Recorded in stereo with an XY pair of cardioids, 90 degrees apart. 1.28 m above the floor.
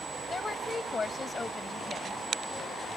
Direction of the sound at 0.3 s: 40° left.